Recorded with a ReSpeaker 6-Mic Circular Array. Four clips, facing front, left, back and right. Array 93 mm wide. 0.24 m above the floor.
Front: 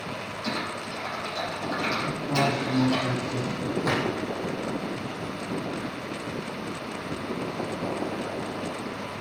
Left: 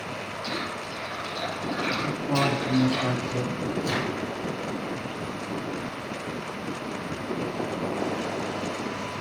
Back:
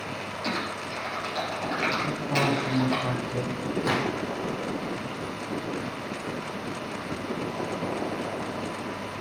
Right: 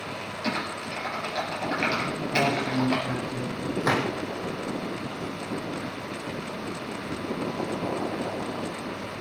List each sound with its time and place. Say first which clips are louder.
0.4 s typing on a keyboard: right 4 dB, even; 115° right, 5 m
2.0 s a woman speaking: left 1 dB, front 2 dB; 80° left, 6.5 m
3.8 s a gunshot: right 7 dB, even; 90° right, 3 m